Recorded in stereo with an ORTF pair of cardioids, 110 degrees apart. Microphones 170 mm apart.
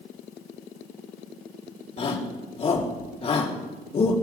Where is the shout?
35° left, 3.5 m.